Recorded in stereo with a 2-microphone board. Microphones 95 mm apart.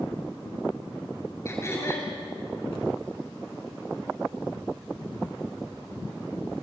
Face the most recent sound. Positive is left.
turn(degrees=25)  # may be behind; listen again after turning